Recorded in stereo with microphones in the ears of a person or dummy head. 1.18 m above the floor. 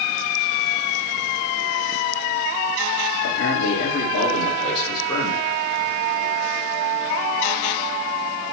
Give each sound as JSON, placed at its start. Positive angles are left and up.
{"t": 3.2, "sound": "a man speaking", "side_deg": 75, "distance_m": 3.0}